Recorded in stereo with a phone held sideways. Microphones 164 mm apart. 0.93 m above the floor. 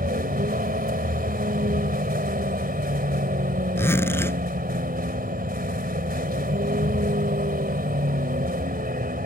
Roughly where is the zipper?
Centre.